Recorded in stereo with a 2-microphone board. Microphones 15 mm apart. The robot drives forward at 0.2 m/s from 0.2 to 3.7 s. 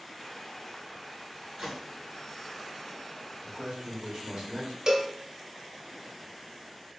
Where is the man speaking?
65° right (ahead or behind), 1.8 m.